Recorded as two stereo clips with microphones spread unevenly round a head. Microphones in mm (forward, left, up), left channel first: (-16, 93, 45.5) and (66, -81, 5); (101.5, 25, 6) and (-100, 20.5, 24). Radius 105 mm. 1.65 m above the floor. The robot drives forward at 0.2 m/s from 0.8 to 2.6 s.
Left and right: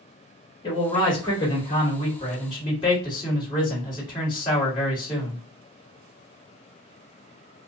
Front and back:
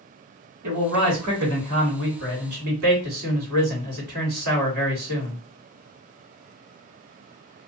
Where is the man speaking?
175° right, 1.5 m.